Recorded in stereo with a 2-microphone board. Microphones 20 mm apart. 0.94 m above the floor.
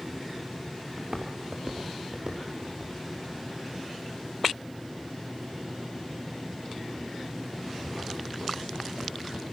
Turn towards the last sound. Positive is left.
turn(degrees=-85)